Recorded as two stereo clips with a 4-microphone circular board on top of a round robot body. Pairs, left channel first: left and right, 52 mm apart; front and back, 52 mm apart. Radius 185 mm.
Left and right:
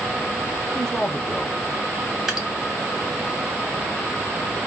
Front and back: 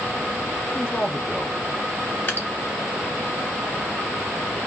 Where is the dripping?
15° right, 1.8 m.